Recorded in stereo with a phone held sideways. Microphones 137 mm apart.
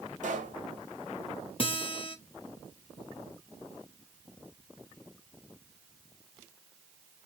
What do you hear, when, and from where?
0.2 s a pop: 65° right (ahead or behind), 1.4 m
1.6 s a guitar: 40° left (ahead or behind), 0.7 m